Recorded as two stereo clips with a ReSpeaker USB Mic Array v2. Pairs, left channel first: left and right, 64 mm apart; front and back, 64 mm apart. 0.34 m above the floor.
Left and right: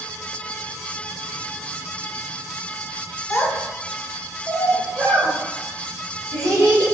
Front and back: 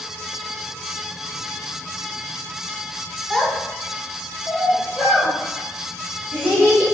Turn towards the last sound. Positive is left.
turn(degrees=-75)